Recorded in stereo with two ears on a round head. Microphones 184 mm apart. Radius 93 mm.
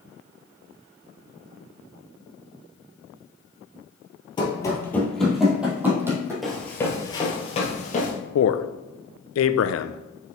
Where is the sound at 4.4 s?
25° left (ahead or behind), 1.6 m; by 6.3 s 15° right (ahead or behind), 2.5 m.